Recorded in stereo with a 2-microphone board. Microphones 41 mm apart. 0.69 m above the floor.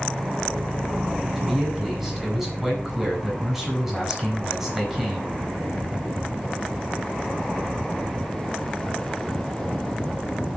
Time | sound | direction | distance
1.4 | a man speaking | centre (ahead or behind) | 4.5 m